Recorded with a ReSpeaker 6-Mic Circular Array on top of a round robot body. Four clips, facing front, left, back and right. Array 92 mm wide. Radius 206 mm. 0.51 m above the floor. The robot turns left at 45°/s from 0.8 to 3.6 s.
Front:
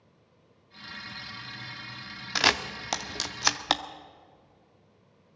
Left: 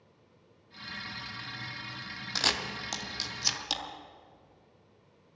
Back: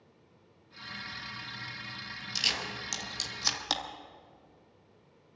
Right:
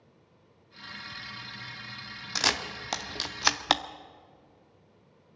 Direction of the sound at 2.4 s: 5° right.